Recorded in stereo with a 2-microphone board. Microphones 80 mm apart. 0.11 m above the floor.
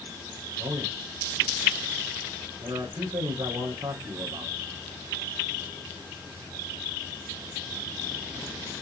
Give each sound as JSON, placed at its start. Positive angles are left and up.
{"t": 0.6, "sound": "a man speaking", "side_deg": -70, "distance_m": 6.0}